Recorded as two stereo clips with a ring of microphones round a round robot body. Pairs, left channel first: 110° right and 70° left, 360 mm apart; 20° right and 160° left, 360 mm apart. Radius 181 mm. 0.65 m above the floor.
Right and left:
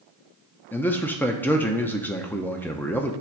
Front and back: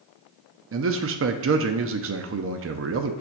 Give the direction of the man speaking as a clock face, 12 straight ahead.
6 o'clock.